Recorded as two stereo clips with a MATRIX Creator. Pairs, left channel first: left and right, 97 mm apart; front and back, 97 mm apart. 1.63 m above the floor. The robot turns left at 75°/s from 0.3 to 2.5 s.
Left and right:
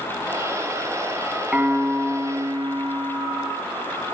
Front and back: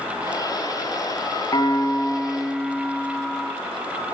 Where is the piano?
20° right, 2.5 m; by 3.5 s 95° right, 2.5 m.